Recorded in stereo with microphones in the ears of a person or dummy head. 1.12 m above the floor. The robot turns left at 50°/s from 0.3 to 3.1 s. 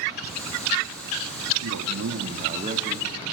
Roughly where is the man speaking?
Right.